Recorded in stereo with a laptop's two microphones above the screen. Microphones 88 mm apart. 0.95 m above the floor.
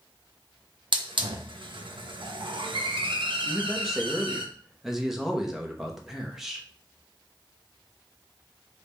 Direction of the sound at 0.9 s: 70° right (ahead or behind).